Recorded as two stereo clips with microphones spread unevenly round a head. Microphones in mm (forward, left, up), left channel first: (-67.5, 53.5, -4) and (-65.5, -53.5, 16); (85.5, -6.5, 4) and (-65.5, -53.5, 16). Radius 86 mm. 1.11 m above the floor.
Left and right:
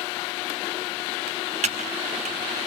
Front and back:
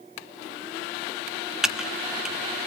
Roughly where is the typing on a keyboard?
Right.